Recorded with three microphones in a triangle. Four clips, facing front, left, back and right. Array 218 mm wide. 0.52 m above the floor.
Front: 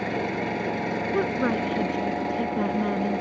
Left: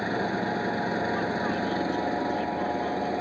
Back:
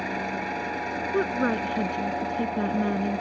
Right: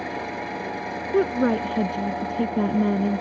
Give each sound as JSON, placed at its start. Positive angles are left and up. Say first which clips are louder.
{"t": 0.0, "sound": "an engine running", "louder": "left 2 dB, front 3 dB", "azimuth_deg": 35}
{"t": 1.1, "sound": "a woman speaking", "louder": "right 7 dB, back 1 dB", "azimuth_deg": -95}